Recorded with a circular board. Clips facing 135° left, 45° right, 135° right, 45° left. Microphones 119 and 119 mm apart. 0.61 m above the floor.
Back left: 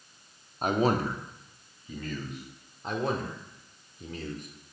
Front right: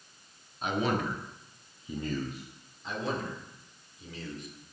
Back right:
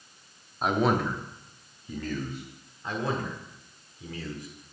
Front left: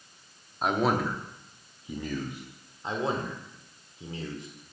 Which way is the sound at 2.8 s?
110° left.